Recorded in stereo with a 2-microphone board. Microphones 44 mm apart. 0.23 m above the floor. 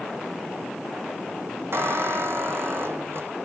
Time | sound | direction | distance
1.7 | a squeak | 60° right (ahead or behind) | 1.0 m